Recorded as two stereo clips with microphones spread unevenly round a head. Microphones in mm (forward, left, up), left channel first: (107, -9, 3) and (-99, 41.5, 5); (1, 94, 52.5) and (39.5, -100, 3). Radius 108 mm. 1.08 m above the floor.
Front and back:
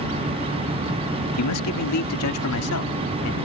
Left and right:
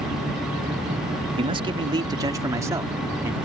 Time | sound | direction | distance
1.4 | a man speaking | 20° right | ?